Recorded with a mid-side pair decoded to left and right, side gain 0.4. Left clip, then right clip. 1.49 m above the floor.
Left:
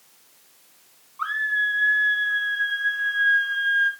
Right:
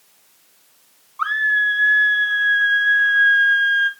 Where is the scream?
50° right, 1.4 m.